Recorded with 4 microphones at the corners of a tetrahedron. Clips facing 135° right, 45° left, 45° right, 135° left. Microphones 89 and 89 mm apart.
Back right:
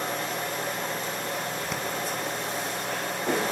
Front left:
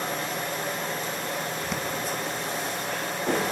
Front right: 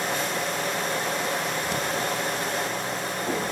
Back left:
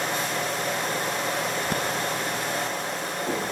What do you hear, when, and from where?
1.7 s breathing: 135° left, 1.8 m